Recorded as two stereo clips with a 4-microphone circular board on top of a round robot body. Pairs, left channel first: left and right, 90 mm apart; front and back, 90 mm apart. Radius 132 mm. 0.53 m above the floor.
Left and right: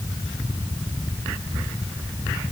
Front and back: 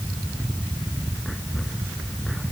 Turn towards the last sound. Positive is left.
No sound to turn to.